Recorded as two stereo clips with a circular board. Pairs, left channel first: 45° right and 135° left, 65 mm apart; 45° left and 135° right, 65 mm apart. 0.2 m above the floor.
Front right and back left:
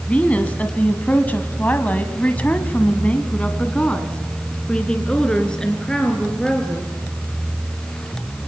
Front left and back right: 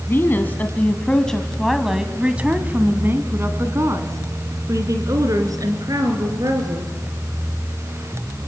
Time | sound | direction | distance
0.1 | a woman speaking | 15° left | 1.9 m